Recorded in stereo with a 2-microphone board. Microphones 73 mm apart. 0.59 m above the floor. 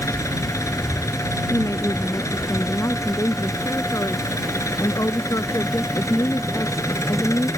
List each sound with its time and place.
0.0 s an engine running: 45° left (ahead or behind)
1.5 s a woman speaking: 45° left (ahead or behind)